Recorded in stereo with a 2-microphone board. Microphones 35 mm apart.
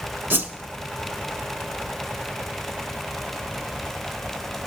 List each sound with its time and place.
0.3 s a whoosh: 75° right (ahead or behind), 0.7 m